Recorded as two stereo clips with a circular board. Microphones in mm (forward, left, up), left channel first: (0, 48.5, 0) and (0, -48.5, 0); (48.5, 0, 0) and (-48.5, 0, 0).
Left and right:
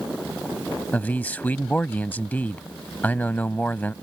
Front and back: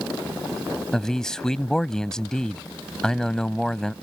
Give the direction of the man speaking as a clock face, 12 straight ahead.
10 o'clock.